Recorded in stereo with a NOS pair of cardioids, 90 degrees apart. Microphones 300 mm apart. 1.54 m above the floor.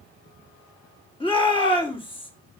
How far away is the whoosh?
No whoosh in this recording.